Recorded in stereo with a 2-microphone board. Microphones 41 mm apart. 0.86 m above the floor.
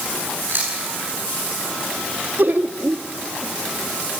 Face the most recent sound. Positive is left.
turn(degrees=-55)  # may be behind; listen again after turning